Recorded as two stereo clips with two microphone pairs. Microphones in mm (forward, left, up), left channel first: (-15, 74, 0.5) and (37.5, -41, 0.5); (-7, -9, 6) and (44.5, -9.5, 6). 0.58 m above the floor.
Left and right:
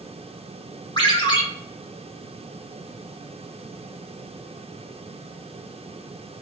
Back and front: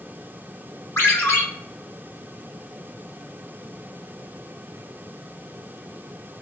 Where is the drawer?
No drawer in this recording.